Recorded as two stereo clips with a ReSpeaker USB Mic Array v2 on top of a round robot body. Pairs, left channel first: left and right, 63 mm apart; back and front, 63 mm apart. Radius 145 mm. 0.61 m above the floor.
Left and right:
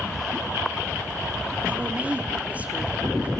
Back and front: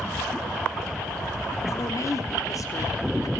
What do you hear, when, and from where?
1.7 s a woman speaking: 155° right, 1.7 m